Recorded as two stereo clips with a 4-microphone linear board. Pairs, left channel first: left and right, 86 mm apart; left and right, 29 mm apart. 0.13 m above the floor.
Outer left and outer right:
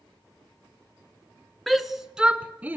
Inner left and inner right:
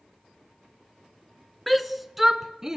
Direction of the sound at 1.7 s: 5° left (ahead or behind).